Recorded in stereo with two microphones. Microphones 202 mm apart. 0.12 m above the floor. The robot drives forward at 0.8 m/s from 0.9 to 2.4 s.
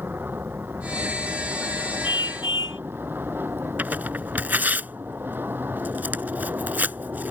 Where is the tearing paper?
10° right (ahead or behind).